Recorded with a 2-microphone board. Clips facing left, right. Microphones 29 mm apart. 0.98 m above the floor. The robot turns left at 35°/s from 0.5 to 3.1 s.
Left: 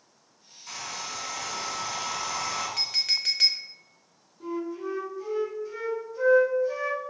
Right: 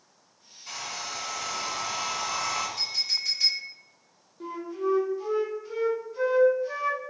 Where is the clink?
70° left (ahead or behind), 0.6 m; by 3.7 s 80° left, 0.6 m.